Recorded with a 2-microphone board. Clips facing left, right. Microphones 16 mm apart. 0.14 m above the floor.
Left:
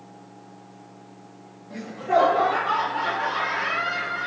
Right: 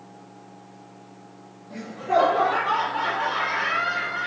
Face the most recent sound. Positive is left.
turn(degrees=-30)  # may be behind; listen again after turning